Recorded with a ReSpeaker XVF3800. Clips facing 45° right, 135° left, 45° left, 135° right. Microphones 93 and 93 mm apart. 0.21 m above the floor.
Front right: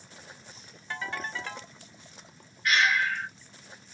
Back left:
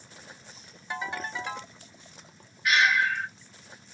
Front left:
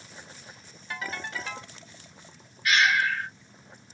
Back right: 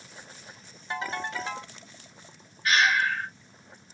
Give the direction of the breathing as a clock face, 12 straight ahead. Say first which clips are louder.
Back left 2 dB, even; 5 o'clock.